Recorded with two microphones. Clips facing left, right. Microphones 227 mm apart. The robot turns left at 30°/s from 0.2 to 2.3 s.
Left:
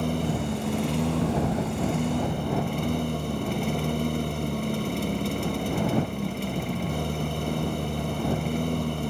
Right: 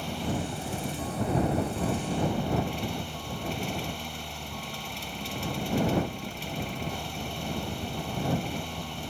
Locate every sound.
0.0 s a lawn mower: 120° left; by 9.1 s 60° left